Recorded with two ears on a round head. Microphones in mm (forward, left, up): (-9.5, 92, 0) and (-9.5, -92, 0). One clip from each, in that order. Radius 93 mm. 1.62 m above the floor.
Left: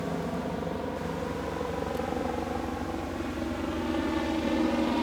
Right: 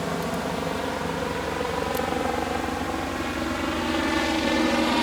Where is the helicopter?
65° right (ahead or behind); by 5.0 s 60° right (ahead or behind).